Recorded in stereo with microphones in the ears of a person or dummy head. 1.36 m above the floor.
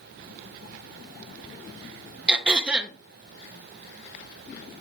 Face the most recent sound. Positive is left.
turn(degrees=-5)  # may be behind; listen again after turning